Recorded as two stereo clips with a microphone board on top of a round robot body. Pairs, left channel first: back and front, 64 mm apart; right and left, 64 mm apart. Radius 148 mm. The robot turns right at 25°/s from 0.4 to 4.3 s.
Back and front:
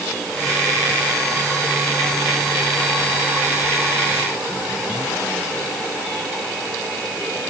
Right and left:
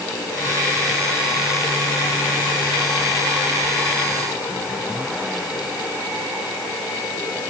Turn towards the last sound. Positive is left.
No sound to turn to.